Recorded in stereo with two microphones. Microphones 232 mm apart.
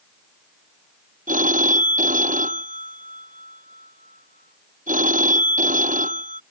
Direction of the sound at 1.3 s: 35° right (ahead or behind).